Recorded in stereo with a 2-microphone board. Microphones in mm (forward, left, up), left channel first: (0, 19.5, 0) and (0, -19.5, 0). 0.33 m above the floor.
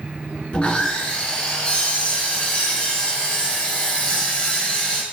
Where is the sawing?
30° left (ahead or behind), 0.7 m.